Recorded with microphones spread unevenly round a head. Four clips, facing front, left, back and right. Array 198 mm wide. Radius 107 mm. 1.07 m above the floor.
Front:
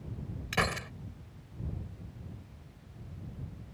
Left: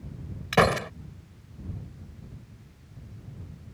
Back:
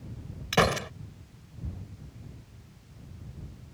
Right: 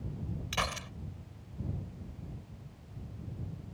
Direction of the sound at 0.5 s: 110° left.